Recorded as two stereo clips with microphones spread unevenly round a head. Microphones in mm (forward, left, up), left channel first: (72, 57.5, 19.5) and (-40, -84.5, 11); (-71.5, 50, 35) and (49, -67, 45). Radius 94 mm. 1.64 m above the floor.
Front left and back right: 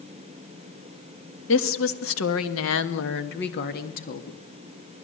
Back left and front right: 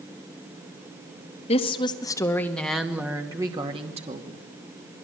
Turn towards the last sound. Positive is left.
turn(degrees=5)